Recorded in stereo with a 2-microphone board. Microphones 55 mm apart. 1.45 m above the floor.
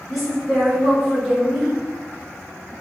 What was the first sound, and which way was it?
A woman speaking, centre (ahead or behind).